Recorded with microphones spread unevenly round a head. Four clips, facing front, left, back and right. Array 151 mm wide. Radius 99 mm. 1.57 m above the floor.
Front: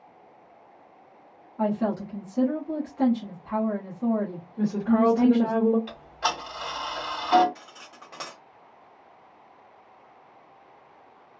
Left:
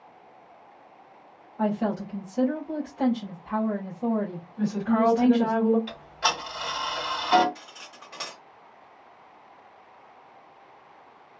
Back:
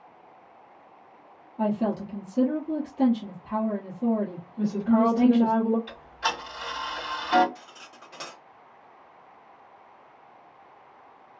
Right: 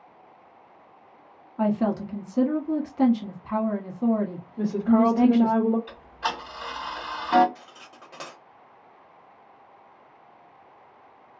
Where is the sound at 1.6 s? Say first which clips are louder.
Right 2 dB, even; 95° right, 1.0 m.